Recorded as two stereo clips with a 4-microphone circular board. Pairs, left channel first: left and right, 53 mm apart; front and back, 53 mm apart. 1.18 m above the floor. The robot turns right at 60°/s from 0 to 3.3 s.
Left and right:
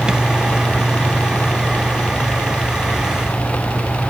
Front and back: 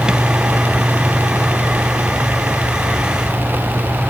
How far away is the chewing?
I don't hear chewing.